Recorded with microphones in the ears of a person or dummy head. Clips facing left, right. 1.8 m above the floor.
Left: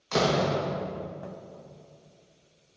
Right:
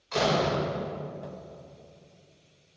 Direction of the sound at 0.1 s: 55° left (ahead or behind).